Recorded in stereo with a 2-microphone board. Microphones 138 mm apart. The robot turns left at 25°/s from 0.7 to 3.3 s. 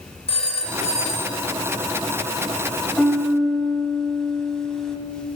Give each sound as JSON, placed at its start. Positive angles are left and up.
{"t": 0.3, "sound": "a phone ringing", "side_deg": 45, "distance_m": 1.3}
{"t": 3.0, "sound": "a piano", "side_deg": 0, "distance_m": 0.8}